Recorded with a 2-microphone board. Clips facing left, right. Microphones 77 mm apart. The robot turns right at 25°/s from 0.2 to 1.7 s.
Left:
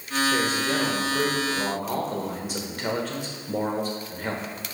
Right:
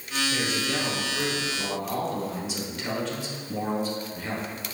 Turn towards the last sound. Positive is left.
turn(degrees=90)